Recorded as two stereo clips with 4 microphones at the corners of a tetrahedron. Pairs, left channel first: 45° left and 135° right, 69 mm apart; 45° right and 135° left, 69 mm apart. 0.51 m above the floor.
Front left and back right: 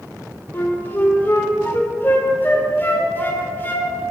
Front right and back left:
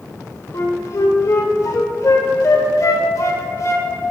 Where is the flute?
15° right, 1.3 m.